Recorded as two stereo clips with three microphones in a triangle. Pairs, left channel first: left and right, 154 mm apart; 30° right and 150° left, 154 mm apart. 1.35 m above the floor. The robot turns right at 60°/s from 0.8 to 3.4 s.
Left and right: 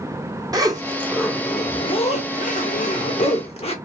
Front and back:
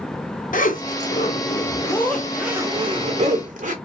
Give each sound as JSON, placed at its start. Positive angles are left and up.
{"t": 0.5, "sound": "a zipper", "azimuth_deg": -25, "distance_m": 0.7}